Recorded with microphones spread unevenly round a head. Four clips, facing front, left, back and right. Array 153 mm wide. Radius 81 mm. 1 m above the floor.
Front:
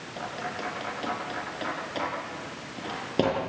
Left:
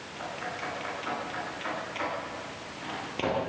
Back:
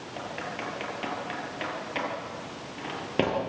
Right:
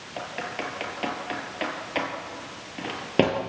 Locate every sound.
0.2 s typing on a keyboard: 75° right, 6.5 m